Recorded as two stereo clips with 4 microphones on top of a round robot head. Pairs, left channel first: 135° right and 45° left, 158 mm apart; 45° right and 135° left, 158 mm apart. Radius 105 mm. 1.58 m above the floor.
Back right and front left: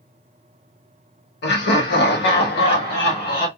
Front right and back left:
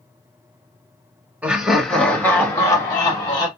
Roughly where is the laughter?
Behind right.